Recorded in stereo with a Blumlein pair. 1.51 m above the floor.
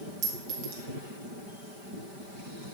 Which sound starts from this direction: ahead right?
A clink, at 0.2 s.